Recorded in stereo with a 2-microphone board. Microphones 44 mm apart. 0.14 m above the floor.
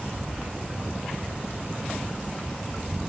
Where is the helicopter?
10° left (ahead or behind).